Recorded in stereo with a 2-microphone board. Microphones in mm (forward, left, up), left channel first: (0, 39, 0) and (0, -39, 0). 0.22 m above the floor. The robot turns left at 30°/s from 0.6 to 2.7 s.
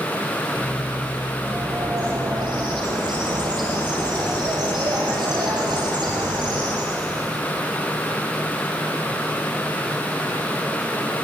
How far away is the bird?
About 5.5 m.